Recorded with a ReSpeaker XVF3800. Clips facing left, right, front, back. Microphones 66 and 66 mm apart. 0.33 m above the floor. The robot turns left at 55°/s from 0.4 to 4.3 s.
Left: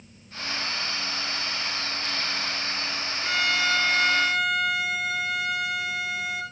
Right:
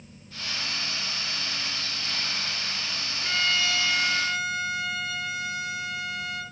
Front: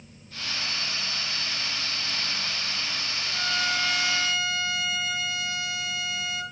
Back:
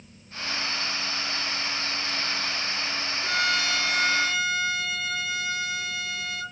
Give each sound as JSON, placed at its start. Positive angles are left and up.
{"t": 3.2, "sound": "a violin", "azimuth_deg": 180, "distance_m": 4.5}